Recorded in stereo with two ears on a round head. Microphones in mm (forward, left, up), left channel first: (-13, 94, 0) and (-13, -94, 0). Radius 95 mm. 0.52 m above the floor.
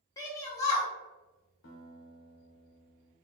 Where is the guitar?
65° left (ahead or behind), 0.8 m.